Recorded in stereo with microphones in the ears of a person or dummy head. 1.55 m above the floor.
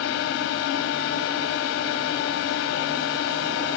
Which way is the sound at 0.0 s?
70° left (ahead or behind).